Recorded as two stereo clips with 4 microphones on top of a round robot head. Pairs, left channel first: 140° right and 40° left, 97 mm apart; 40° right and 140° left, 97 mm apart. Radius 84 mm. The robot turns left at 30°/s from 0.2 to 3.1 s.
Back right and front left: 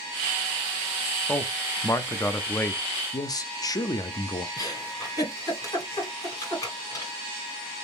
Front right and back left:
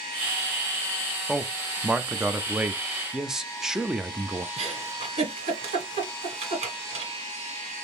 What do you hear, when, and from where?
1.3 s a man speaking: 140° right, 0.6 m; by 2.8 s 175° left, 0.6 m
3.1 s a man speaking: 140° right, 0.7 m
4.6 s a giggle: 160° left, 1.6 m